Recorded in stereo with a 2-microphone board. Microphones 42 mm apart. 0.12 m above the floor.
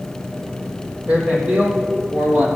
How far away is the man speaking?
About 3.5 m.